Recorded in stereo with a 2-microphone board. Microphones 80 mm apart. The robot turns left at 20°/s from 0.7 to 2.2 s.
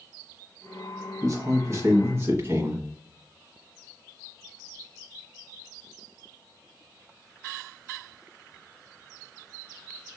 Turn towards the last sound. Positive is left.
turn(degrees=-35)  # may be behind; listen again after turning